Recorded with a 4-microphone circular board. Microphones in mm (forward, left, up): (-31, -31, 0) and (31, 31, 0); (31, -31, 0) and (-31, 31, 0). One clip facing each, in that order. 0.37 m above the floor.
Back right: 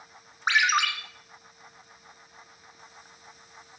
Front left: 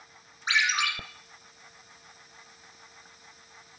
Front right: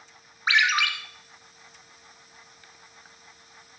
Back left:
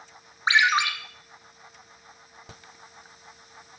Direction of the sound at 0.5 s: 160° right.